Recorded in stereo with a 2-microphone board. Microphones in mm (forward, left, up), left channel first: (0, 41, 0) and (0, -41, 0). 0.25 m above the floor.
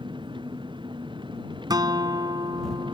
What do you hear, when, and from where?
0.0 s an engine running: 75° right (ahead or behind)
1.7 s a guitar: 55° right (ahead or behind)